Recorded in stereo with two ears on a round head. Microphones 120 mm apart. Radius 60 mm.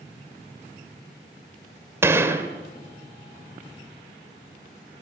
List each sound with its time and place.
2.0 s a gunshot: 20° right (ahead or behind), 2.0 m